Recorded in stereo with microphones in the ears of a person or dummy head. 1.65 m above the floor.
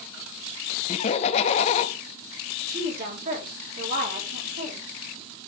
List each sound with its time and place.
0.9 s laughter: 35° left (ahead or behind), 0.9 m
2.7 s a woman speaking: 55° right (ahead or behind), 3 m